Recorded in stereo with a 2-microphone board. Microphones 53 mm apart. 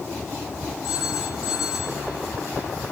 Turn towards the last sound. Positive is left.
turn(degrees=-10)  # may be behind; listen again after turning